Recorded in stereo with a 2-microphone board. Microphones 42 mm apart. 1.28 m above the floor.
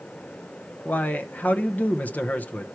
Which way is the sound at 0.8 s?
45° left (ahead or behind).